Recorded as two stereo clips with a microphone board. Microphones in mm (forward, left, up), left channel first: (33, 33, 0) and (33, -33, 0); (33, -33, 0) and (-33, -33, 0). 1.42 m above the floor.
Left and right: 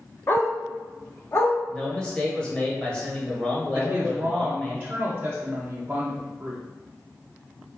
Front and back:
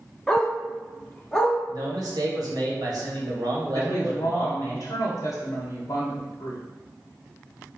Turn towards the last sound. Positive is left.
turn(degrees=-25)